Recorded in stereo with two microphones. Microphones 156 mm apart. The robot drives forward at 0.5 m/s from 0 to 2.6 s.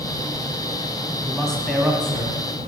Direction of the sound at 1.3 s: 5° left (ahead or behind).